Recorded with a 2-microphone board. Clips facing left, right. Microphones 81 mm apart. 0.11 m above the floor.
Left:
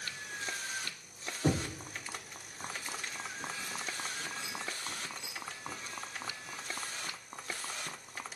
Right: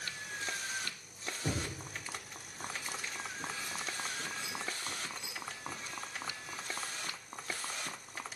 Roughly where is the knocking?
Left.